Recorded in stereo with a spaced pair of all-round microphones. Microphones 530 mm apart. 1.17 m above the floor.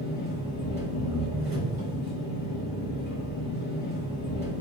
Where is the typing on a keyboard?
I don't hear typing on a keyboard.